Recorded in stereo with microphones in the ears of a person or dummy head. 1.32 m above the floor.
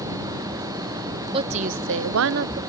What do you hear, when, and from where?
1.3 s a woman speaking: 30° right (ahead or behind); by 2.6 s 35° right (ahead or behind)